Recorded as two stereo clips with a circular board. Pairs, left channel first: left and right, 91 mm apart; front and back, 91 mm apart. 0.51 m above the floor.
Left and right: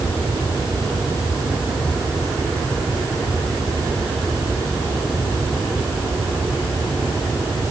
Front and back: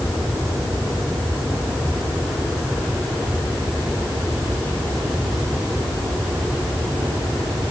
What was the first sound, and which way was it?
Only background noise.